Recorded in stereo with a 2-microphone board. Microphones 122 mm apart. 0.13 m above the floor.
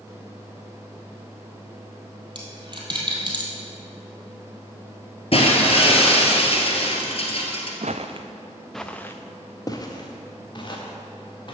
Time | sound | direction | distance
2.4 | a dropped coin | 40° right (ahead or behind) | 2.0 m
5.3 | breaking glass | 55° left (ahead or behind) | 1.6 m
7.8 | footsteps | 75° right (ahead or behind) | 0.7 m